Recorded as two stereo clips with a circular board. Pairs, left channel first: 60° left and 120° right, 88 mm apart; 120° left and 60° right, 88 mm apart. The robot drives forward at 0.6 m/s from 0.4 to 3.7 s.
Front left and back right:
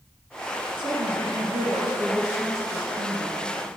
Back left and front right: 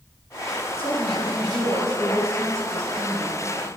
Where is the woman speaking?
95° right, 3 m; by 3.4 s 125° right, 3.5 m.